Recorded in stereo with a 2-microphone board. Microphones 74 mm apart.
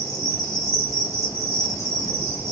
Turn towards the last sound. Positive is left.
turn(degrees=40)  # may be behind; listen again after turning